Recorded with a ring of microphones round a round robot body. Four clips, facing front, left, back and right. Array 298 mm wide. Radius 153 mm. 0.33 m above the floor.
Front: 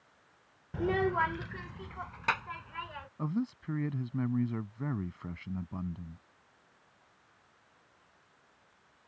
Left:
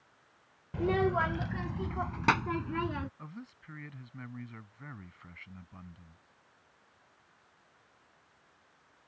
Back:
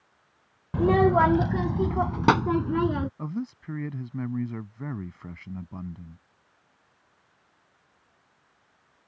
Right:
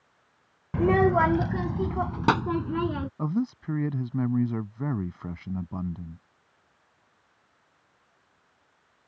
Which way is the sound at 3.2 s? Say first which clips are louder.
Right 19 dB, back 1 dB; 95° right.